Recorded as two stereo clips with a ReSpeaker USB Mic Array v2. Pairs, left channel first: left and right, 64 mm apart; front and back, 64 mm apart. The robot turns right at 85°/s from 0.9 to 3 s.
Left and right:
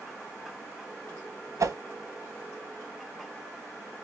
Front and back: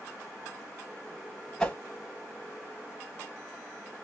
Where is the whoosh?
80° right, 0.8 m; by 1.8 s 65° right, 0.8 m.